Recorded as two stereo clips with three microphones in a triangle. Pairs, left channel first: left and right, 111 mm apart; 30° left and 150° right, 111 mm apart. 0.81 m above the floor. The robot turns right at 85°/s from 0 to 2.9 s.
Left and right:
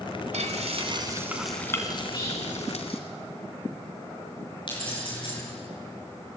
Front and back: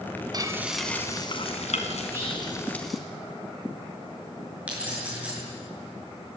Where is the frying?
95° right, 2.5 m; by 3.0 s 120° left, 2.5 m.